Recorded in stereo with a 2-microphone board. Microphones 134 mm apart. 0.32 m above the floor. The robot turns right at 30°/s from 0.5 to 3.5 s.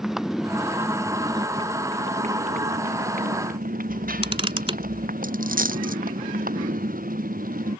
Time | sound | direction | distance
0.0 | a motorcycle | 175° right | ?
3.9 | a camera shutter | 40° right (ahead or behind) | ?
5.2 | a dropped coin | 85° right | ?